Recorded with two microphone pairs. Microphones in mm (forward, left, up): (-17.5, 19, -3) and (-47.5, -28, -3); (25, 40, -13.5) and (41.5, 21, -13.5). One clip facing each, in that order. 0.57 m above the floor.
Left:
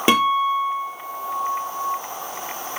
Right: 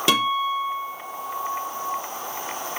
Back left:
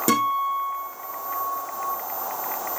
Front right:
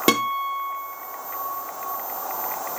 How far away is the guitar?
About 5 m.